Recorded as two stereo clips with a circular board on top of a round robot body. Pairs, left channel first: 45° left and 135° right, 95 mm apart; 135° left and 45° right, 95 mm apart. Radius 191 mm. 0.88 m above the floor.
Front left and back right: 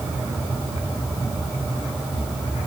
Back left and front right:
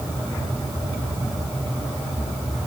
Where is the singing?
I don't hear singing.